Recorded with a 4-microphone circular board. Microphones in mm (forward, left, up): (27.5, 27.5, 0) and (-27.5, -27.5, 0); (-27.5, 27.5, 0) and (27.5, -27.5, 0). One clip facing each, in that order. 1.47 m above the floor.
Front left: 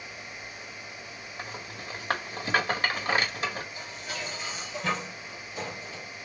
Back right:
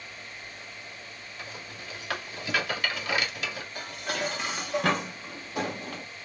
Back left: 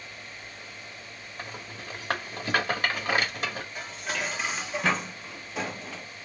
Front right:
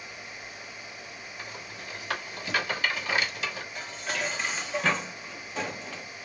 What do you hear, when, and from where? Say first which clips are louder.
1.4 s a rattle: front left 3 dB, back left 3 dB; 95° left, 1.6 m
3.8 s dishes clattering: back right 5 dB, front right 1 dB; 140° right, 0.9 m